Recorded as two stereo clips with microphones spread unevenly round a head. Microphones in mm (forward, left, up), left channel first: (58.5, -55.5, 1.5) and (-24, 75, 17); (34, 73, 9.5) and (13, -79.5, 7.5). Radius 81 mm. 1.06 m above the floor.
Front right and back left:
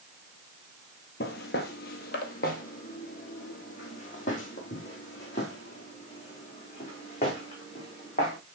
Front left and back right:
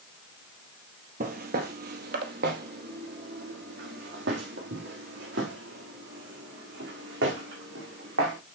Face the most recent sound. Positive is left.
turn(degrees=-115)